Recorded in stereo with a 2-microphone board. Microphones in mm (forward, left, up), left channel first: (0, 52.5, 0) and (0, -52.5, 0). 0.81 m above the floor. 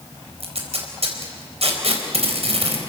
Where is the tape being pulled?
75° right (ahead or behind), 4 m.